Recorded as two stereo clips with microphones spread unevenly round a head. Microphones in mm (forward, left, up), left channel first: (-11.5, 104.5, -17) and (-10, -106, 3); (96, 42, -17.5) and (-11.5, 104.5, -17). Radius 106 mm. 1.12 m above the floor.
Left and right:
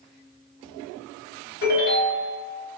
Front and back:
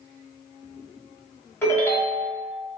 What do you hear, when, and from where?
1.6 s a ringtone: 40° left, 1.8 m